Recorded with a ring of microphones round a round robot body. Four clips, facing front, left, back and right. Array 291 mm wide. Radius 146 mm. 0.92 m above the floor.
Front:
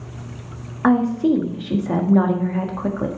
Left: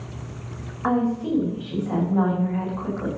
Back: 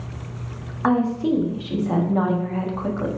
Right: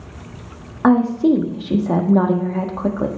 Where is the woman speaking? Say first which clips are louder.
Right 9 dB, front 3 dB; 70° right, 1.6 m.